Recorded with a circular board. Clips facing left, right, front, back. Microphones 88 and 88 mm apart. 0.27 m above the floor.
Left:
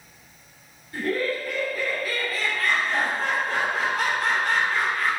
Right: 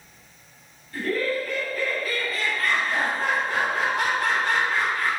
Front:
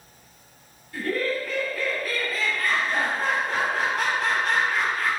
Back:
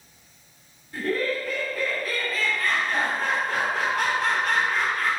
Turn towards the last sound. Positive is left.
turn(degrees=-40)